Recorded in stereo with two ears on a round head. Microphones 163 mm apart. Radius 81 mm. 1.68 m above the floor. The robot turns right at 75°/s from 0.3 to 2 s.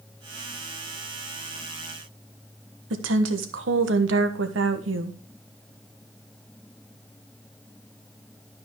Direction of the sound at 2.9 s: 75° right (ahead or behind).